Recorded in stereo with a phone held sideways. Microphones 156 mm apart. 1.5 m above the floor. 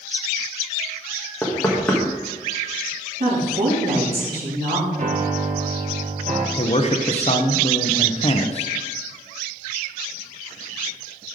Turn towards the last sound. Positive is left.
turn(degrees=40)  # may be behind; listen again after turning